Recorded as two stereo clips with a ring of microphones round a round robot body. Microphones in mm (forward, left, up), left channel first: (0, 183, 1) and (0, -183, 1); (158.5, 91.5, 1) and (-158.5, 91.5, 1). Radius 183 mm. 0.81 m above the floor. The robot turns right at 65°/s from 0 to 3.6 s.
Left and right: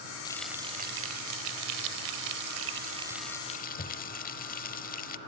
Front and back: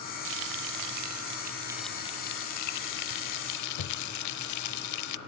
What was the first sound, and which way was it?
Frying, 165° left.